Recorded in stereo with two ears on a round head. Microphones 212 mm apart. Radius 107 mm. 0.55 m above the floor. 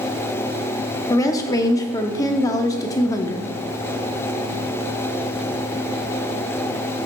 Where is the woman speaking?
15° left (ahead or behind), 0.7 m.